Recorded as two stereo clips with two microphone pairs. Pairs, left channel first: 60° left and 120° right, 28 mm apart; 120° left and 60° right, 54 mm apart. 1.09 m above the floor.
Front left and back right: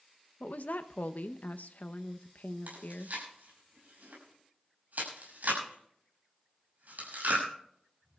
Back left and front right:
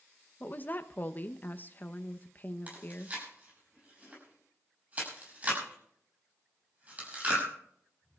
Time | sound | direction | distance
0.4 | a woman speaking | 70° left | 0.7 m
2.7 | chewing | 120° right | 6.5 m